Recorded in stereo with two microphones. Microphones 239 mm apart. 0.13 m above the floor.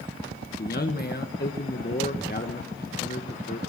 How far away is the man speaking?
About 1.6 m.